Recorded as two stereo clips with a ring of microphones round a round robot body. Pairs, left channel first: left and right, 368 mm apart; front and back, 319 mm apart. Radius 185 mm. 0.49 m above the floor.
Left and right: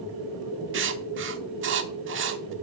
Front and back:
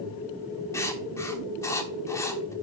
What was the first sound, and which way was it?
Writing, 75° right.